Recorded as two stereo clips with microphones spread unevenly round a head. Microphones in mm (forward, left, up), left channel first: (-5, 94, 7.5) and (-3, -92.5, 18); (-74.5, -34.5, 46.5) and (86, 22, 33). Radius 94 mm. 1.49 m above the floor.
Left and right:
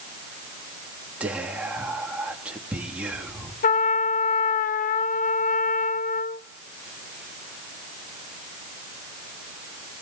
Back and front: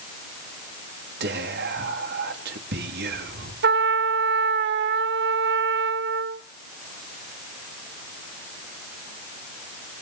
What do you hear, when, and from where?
1.2 s whispering: 5° right, 3 m
3.6 s a trumpet: 40° left, 0.9 m